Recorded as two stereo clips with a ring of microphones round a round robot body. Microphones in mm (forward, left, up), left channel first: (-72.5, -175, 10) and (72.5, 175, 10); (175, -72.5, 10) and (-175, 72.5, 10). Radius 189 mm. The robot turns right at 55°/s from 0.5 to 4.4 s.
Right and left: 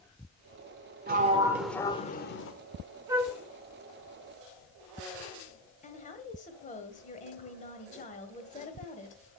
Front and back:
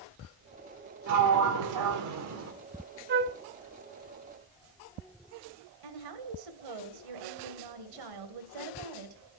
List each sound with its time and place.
1.1 s a sliding door: 125° left, 1.4 m; by 2.5 s 155° right, 1.4 m
3.1 s a flute: 140° left, 0.7 m; by 3.4 s 155° left, 0.7 m
5.8 s a woman speaking: straight behind, 2.0 m